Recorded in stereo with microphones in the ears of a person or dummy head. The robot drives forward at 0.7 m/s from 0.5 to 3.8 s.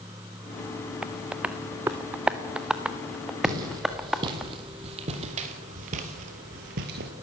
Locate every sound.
1.0 s tapping: 5° right (ahead or behind), 0.8 m
3.4 s footsteps: 25° right (ahead or behind), 4 m; by 7.1 s 50° right (ahead or behind), 2.5 m